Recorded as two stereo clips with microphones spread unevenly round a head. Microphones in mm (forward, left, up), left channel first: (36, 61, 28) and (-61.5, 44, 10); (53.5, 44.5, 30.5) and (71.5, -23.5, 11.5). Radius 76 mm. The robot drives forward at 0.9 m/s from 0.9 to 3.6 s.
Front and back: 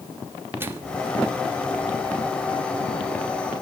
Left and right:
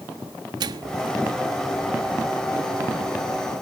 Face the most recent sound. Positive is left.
turn(degrees=-160)